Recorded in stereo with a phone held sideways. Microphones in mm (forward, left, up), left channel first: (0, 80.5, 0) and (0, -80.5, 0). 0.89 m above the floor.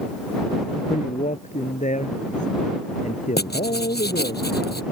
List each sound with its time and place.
0.9 s a man speaking: 50° left (ahead or behind)
3.4 s writing: 85° left